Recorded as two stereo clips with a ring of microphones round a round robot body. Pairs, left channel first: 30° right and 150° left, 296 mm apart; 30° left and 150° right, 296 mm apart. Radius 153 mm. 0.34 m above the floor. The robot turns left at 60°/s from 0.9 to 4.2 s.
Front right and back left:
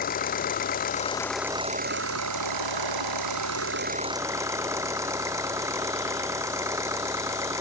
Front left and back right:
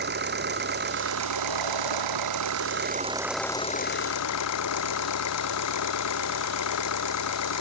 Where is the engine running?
95° right; by 7.6 s 70° left.